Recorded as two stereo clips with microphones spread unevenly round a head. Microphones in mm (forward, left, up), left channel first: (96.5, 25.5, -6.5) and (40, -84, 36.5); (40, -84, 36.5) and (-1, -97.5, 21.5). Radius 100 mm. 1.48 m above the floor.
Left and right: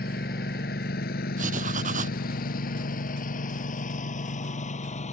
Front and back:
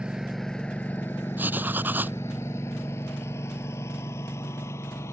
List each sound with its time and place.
0.0 s a lawn mower: 105° left; by 5.1 s 30° left
1.4 s writing: 115° right